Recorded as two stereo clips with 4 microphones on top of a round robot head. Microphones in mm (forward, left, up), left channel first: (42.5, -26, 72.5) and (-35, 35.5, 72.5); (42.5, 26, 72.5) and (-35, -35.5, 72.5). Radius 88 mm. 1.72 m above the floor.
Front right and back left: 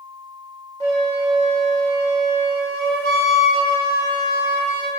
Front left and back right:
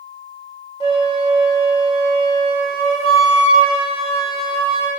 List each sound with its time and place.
0.8 s a flute: 15° left, 1.2 m